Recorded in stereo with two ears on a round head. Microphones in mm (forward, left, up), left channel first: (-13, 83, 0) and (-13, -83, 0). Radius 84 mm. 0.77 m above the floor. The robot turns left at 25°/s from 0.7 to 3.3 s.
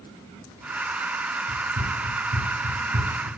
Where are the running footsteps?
75° right (ahead or behind), 5 m; by 3.3 s 35° right (ahead or behind), 3.5 m.